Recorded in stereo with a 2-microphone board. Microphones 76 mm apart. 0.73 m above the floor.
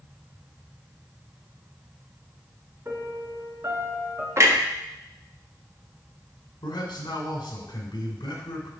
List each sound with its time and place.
2.9 s a piano: 35° right (ahead or behind), 1.6 m
4.4 s a clunk: 40° right (ahead or behind), 1.3 m
6.6 s a man speaking: 75° left (ahead or behind), 2.5 m